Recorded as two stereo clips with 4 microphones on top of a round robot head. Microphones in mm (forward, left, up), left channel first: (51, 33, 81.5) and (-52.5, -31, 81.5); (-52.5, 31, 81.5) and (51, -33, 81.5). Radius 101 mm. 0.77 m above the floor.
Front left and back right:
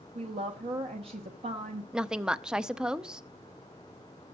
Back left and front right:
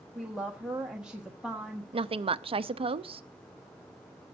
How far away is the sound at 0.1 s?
About 1.4 m.